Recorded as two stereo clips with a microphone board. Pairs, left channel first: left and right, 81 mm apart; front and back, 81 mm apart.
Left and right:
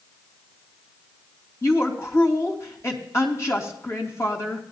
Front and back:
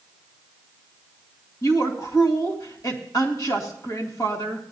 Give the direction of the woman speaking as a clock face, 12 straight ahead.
11 o'clock.